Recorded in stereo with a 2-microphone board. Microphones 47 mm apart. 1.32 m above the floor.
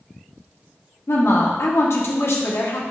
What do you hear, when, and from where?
1.1 s a woman speaking: 70° left (ahead or behind), 1.3 m